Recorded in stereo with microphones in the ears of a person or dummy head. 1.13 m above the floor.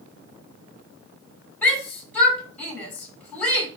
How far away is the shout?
About 7.5 m.